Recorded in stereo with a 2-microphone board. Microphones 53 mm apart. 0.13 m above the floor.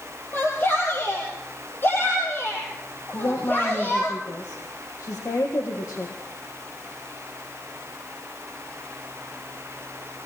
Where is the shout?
40° left (ahead or behind), 4.5 m.